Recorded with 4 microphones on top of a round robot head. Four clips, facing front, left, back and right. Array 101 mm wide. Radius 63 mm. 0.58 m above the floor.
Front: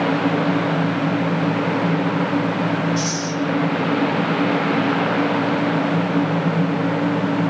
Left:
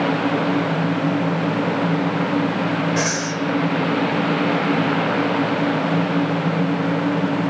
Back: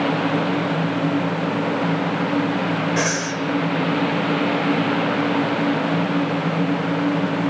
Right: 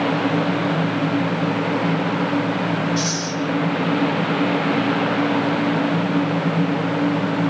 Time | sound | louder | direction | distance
3.0 | breathing | left 1 dB, back 1 dB | 145° left | 1.7 m